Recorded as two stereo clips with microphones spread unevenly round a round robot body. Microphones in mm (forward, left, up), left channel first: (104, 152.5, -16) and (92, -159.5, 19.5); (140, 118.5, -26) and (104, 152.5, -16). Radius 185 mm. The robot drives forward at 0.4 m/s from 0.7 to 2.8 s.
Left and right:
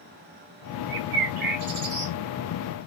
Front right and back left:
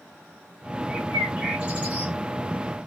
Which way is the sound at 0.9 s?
125° right.